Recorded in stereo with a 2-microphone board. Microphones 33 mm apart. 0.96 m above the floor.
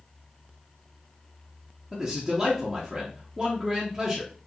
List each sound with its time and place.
1.9 s a man speaking: 10° right (ahead or behind), 0.7 m